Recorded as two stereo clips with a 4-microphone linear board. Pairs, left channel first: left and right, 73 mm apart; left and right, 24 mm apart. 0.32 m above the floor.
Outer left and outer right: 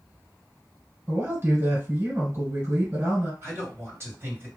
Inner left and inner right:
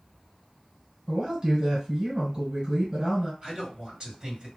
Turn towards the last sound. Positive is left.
turn(degrees=-40)  # may be behind; listen again after turning